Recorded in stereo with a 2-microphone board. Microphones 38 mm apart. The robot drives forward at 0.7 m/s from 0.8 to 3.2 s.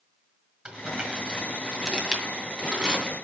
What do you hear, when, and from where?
0.7 s crumpling: 20° right (ahead or behind), 1.6 m; by 3.1 s 15° right (ahead or behind), 2.5 m